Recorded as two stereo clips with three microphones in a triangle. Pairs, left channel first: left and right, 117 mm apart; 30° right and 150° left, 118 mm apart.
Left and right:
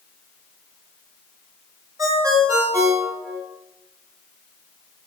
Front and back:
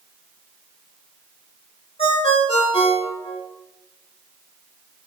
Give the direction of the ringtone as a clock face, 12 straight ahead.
1 o'clock.